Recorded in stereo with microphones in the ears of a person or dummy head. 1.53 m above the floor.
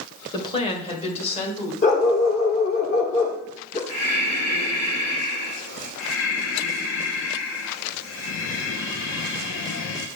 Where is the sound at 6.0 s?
80° left, 1.4 m.